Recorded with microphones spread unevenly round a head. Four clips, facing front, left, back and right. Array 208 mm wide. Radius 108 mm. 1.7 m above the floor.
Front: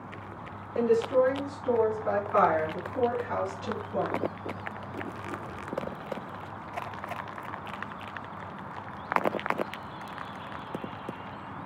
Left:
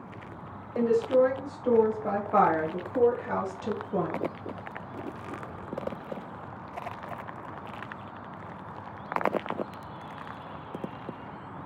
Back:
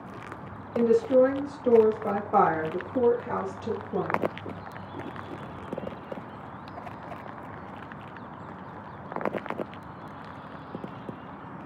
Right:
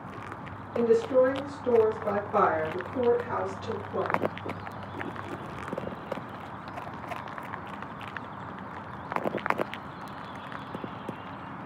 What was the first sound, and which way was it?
A woman speaking, 160° left.